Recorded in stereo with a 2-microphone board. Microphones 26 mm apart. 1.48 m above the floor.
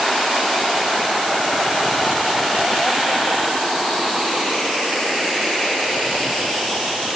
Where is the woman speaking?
I don't hear a woman speaking.